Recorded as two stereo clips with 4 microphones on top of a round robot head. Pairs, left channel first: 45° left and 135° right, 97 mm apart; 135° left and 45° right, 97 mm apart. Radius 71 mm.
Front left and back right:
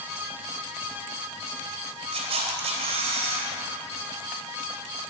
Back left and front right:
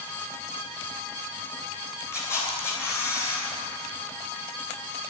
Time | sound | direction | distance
2.1 | a camera shutter | 165° right | 3 m